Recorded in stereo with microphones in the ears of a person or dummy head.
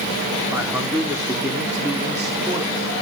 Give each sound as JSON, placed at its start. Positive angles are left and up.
{"t": 0.5, "sound": "a man speaking", "side_deg": -5, "distance_m": 1.1}